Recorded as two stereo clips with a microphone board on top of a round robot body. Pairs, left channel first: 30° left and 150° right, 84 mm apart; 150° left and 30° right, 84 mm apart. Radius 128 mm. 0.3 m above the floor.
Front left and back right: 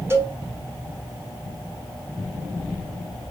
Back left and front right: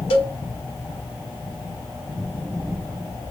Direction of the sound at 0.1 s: 145° left.